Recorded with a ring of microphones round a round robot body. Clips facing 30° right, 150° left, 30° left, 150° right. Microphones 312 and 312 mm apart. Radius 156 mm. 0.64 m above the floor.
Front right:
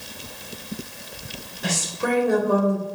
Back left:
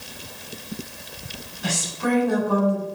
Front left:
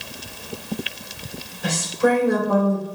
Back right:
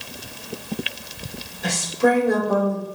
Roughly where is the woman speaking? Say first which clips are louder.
Back left 1 dB, even; right.